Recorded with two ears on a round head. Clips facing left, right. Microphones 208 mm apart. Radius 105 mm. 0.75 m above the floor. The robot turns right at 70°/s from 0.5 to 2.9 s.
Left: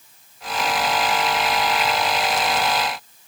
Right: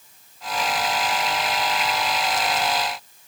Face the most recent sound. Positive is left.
No sound to turn to.